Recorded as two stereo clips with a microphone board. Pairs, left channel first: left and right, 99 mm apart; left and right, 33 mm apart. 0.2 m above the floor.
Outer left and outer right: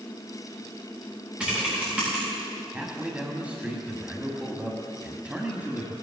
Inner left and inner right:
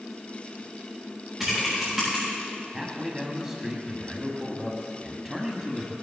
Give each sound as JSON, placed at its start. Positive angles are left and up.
{"t": 1.4, "sound": "typing on a keyboard", "side_deg": -10, "distance_m": 6.5}
{"t": 2.7, "sound": "a man speaking", "side_deg": -15, "distance_m": 1.6}